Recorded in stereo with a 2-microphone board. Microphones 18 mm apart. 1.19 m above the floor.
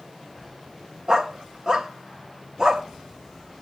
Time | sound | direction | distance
1.1 | a dog barking | 35° right (ahead or behind) | 0.8 m